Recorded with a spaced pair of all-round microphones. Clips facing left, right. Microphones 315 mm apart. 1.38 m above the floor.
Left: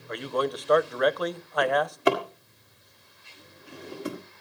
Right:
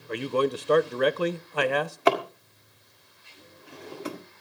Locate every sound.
0.1 s a man speaking: 35° right (ahead or behind), 0.6 m
1.6 s a drawer: 20° left (ahead or behind), 1.8 m